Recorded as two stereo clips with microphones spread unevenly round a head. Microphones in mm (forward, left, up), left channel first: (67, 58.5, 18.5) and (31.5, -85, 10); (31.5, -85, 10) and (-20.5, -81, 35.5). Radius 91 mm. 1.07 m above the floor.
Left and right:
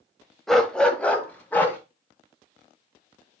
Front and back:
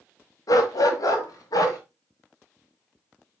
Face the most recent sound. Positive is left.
turn(degrees=0)